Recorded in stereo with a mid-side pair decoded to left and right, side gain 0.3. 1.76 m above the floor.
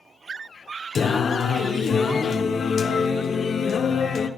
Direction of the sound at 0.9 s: 65° left.